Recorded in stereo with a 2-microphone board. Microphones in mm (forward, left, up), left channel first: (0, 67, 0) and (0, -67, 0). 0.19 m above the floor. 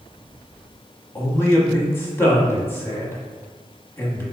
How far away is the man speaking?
About 1.0 m.